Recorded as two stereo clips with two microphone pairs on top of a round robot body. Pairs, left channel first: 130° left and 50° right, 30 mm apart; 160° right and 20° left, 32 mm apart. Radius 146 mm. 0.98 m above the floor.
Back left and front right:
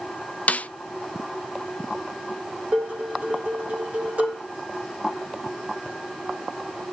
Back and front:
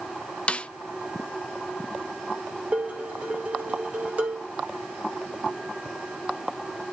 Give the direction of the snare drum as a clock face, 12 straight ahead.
7 o'clock.